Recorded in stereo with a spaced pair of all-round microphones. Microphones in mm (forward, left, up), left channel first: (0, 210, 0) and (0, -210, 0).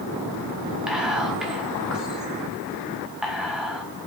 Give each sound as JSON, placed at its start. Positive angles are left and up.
{"t": 0.9, "sound": "whispering", "side_deg": 0, "distance_m": 0.7}